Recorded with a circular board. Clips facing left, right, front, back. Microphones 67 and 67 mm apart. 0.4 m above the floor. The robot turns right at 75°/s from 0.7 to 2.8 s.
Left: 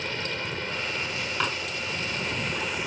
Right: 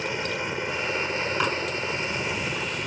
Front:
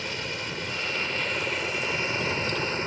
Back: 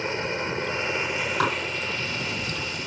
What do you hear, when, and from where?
0.0 s a helicopter: 150° right; by 2.9 s 10° left
1.4 s dishes clattering: 175° right; by 1.6 s 160° right